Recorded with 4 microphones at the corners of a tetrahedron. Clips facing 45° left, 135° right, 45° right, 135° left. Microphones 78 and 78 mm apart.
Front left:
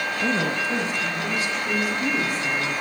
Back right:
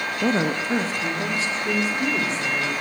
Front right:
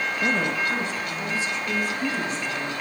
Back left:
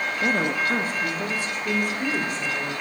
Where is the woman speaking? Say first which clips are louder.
Back right 3 dB, back left 1 dB; 140° right, 0.6 m; by 2.7 s 165° left, 2.5 m.